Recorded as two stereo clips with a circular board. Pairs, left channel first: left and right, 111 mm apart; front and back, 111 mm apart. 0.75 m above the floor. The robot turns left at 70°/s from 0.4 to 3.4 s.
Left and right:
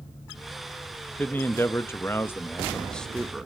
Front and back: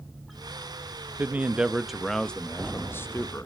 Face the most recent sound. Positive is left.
turn(degrees=-10)